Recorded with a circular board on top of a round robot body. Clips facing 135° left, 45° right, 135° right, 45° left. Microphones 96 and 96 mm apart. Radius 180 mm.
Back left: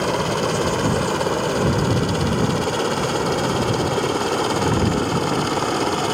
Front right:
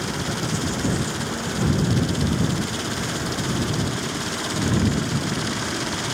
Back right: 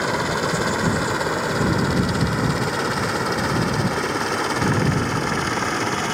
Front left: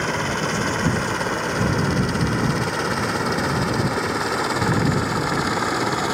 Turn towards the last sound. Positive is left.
turn(degrees=120)